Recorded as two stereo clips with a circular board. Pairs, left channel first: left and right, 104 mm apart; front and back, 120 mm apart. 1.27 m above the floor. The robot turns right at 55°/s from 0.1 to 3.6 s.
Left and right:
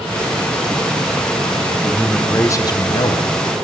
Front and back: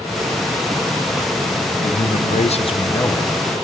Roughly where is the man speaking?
Ahead.